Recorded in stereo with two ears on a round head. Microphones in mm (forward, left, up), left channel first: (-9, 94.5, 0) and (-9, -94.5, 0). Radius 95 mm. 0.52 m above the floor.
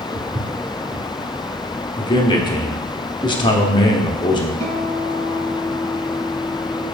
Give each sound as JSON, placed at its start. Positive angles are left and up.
{"t": 0.1, "sound": "footsteps", "side_deg": -25, "distance_m": 1.9}
{"t": 2.0, "sound": "a man speaking", "side_deg": 20, "distance_m": 0.8}
{"t": 4.6, "sound": "a guitar", "side_deg": -70, "distance_m": 1.4}